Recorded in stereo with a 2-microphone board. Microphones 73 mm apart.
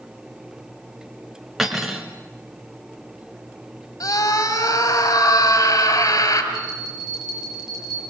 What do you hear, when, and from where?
1.6 s cutlery clinking: centre (ahead or behind), 2.5 m
4.0 s a scream: 55° left (ahead or behind), 5 m
6.5 s a bell: 5° right (ahead or behind), 7.5 m